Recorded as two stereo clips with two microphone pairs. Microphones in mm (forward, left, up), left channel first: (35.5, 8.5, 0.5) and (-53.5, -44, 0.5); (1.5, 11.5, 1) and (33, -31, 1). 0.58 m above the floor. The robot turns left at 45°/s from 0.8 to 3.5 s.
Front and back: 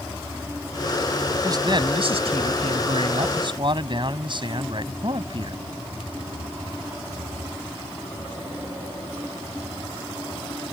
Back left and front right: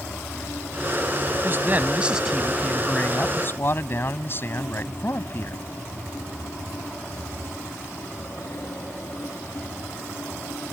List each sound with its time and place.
1.4 s a man speaking: 95° right; by 5.7 s 170° left